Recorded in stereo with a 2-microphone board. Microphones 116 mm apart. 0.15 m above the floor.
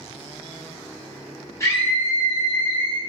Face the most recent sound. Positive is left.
turn(degrees=10)  # may be behind; listen again after turning